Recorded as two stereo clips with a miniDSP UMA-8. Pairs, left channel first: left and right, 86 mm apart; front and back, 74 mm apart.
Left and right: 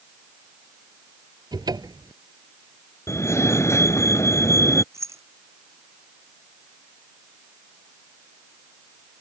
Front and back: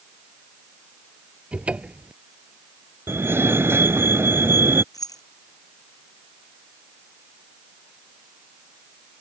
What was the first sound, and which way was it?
A cupboard door, 110° right.